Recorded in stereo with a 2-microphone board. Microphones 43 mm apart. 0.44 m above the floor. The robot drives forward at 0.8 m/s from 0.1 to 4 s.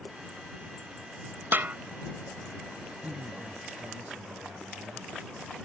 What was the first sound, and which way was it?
A snare drum, 55° right (ahead or behind).